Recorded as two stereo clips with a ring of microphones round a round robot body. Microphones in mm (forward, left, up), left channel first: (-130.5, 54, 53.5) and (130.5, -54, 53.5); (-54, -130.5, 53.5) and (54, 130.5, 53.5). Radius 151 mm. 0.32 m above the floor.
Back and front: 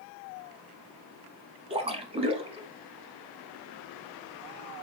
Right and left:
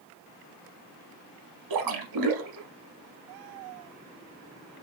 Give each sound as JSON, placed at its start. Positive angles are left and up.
{"t": 1.7, "sound": "a splash", "azimuth_deg": 50, "distance_m": 0.7}